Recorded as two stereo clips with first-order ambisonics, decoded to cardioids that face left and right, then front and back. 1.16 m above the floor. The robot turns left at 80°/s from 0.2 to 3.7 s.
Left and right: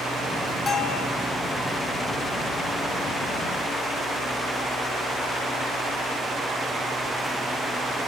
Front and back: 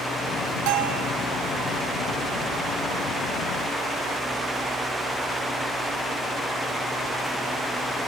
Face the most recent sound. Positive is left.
turn(degrees=-80)